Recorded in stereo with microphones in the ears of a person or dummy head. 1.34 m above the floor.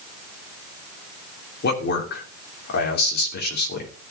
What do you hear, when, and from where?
1.6 s a man speaking: 55° left (ahead or behind), 3 m